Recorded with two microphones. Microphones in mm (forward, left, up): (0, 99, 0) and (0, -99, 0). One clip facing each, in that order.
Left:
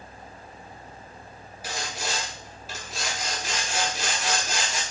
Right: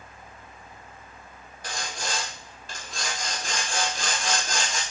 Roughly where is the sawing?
Centre.